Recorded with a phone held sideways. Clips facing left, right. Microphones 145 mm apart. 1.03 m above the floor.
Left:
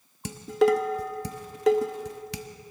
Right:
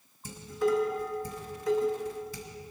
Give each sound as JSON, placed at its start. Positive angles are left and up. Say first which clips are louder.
{"t": 0.2, "sound": "dishes clattering", "louder": "left 6 dB", "side_deg": 80, "distance_m": 0.8}